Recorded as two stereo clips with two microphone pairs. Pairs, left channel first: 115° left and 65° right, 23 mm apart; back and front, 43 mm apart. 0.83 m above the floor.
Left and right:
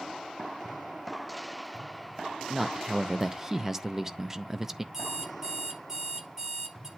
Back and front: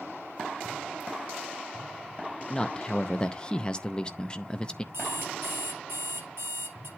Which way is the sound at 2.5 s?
125° right.